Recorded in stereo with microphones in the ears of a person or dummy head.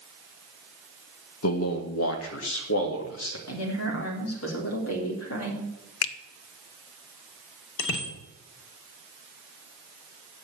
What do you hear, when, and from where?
1.4 s a man speaking: 70° left (ahead or behind), 1.7 m
3.5 s a woman speaking: 85° left, 4 m
6.0 s a finger snap: 85° left, 0.9 m
7.8 s a bicycle bell: 75° left (ahead or behind), 3.5 m